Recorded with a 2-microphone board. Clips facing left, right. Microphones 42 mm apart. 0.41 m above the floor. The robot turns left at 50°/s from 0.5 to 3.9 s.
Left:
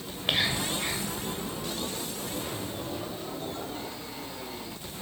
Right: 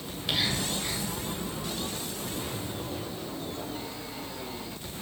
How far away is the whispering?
About 2 m.